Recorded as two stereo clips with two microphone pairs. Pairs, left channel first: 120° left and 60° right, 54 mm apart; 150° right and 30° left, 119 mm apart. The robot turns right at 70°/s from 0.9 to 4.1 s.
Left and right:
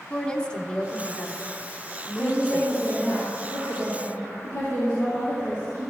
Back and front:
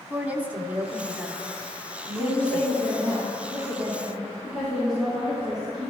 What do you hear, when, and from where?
0.1 s a woman speaking: 85° left, 1.0 m; by 3.2 s 115° right, 1.0 m
2.2 s a woman speaking: 20° right, 3.5 m; by 5.9 s 115° left, 3.5 m